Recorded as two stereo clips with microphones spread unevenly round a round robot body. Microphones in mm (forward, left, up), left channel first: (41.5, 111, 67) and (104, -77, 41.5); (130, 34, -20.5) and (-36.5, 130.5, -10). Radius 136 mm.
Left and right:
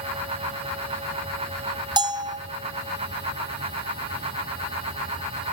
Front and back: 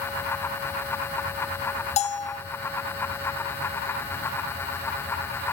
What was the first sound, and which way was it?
A bell, 35° right.